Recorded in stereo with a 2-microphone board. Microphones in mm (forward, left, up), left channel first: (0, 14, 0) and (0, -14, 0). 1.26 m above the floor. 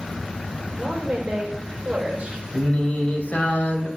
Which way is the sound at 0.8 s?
35° right (ahead or behind).